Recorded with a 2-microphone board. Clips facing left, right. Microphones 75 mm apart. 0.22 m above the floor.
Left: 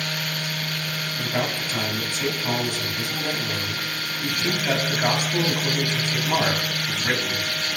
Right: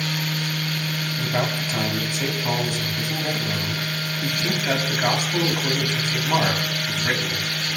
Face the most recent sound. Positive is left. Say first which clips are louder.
# right 1 dB
turn(degrees=-15)  # may be behind; listen again after turning